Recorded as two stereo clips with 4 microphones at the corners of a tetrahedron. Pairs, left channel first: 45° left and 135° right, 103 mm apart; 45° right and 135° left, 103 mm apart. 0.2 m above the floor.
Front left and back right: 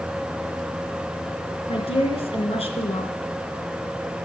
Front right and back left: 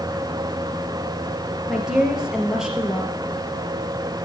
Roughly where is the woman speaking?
Ahead left.